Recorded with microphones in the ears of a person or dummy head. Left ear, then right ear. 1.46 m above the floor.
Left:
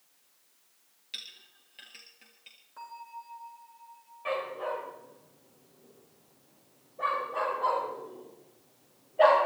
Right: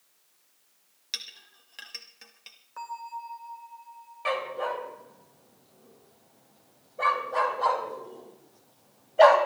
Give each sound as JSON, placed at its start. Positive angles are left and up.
{"t": 1.1, "sound": "a clink", "side_deg": -55, "distance_m": 1.7}
{"t": 2.8, "sound": "a bell", "side_deg": -40, "distance_m": 2.0}
{"t": 4.2, "sound": "a dog barking", "side_deg": -65, "distance_m": 3.0}